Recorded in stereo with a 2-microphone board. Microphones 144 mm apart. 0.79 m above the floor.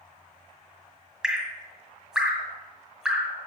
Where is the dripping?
5° right (ahead or behind), 1.8 m.